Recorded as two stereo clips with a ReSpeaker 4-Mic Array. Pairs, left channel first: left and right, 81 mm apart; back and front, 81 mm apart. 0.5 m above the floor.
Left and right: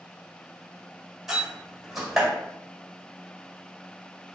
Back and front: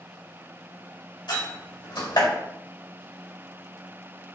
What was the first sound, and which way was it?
A door slam, 175° right.